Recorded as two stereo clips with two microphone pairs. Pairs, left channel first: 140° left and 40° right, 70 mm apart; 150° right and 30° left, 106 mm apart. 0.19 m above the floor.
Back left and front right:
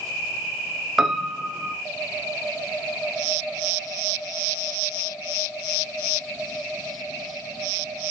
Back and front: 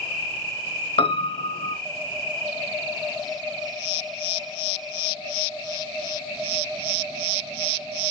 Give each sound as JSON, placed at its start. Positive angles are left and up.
{"t": 1.0, "sound": "a piano", "azimuth_deg": -120, "distance_m": 0.8}